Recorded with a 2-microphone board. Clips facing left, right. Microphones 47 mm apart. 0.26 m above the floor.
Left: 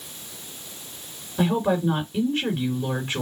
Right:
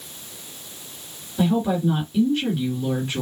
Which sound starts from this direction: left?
A woman speaking, at 1.4 s.